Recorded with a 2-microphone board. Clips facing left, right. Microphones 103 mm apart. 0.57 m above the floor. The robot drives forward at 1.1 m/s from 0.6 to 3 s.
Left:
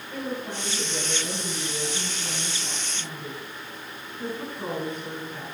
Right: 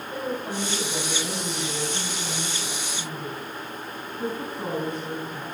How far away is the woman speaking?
About 3.5 m.